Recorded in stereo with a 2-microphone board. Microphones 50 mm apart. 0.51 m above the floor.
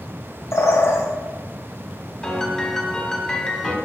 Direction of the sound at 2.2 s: 15° left (ahead or behind).